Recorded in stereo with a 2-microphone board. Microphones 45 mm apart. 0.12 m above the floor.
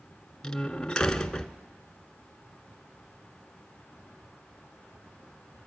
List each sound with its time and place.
0.4 s a door slam: 15° left (ahead or behind), 0.8 m